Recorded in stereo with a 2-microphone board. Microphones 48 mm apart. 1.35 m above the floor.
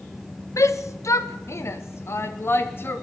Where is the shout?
75° left (ahead or behind), 1.5 m; by 3.0 s 45° left (ahead or behind), 3 m.